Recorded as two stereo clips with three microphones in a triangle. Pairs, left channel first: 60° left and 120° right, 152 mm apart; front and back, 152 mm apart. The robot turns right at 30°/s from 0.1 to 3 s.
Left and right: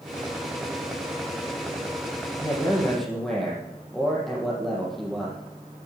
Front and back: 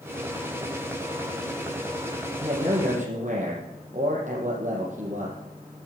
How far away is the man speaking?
About 4.5 m.